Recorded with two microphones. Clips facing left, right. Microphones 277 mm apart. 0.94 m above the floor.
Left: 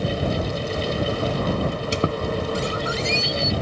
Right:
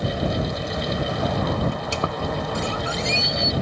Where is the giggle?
No giggle in this recording.